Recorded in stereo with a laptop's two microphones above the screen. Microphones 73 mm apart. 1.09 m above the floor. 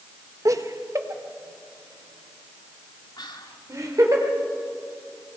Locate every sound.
0.5 s laughter: 50° right (ahead or behind), 0.8 m
3.2 s whispering: 85° left, 2.5 m